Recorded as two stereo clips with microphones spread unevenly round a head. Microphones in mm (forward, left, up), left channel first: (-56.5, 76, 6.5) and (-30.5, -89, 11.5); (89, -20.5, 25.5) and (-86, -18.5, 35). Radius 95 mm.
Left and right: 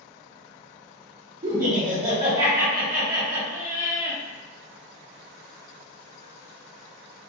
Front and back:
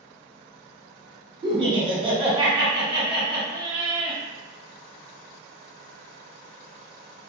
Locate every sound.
1.4 s laughter: 115° right, 1.1 m